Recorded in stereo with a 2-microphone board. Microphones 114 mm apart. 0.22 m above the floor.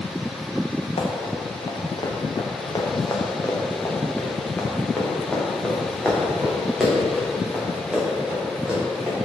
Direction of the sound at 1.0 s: 65° left (ahead or behind).